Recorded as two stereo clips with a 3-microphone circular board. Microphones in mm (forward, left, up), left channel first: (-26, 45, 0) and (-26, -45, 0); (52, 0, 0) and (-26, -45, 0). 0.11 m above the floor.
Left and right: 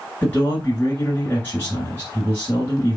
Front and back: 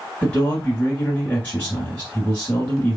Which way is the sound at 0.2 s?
70° left.